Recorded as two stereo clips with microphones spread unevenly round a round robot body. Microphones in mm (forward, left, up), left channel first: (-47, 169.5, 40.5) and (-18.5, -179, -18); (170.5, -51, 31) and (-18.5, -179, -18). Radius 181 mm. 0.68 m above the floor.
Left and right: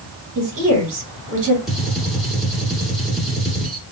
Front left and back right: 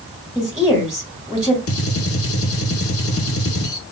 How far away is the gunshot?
About 0.9 m.